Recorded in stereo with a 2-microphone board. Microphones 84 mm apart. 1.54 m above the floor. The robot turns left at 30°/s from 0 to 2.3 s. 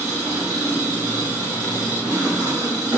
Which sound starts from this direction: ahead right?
An engine running, at 0.0 s.